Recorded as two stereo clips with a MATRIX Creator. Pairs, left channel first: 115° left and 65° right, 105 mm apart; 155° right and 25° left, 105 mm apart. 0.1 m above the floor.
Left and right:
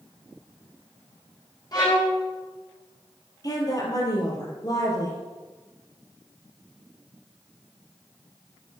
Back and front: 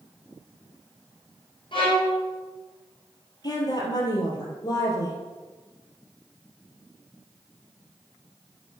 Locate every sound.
1.7 s a violin: 165° left, 3.5 m
3.4 s a woman speaking: 160° left, 2.5 m